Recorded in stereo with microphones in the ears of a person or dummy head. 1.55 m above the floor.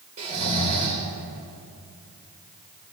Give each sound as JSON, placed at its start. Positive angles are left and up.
{"t": 0.2, "sound": "snoring", "side_deg": -40, "distance_m": 2.0}